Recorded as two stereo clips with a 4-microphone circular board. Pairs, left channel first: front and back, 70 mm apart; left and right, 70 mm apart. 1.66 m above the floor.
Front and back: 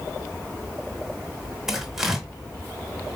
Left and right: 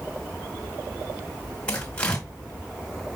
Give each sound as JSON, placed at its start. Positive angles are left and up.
{"t": 1.7, "sound": "tearing paper", "azimuth_deg": 110, "distance_m": 1.5}